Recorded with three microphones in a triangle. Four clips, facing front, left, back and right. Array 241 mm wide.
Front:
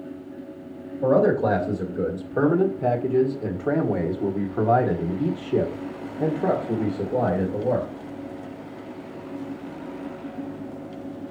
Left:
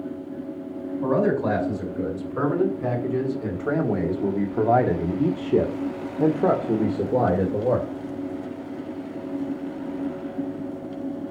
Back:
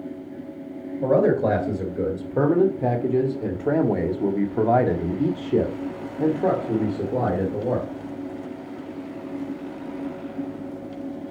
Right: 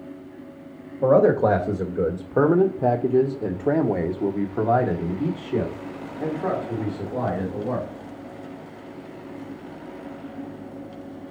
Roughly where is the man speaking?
Right.